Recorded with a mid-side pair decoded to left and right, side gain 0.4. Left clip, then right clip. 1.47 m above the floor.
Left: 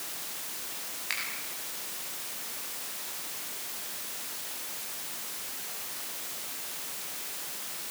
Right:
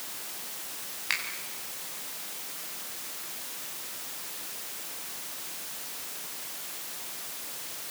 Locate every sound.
1.1 s a finger snap: 40° right, 7.5 m